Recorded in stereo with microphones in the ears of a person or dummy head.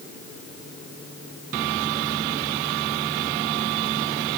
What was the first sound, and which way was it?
Only background noise.